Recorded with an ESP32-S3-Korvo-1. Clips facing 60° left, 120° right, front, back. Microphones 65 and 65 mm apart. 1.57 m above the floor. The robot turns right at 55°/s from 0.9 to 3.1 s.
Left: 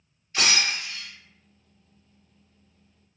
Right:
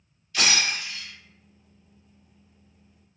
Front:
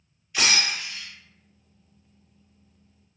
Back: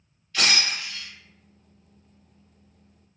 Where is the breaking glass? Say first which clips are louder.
Even, even; 65° left, 1.3 m; by 1.1 s 75° left, 1.3 m.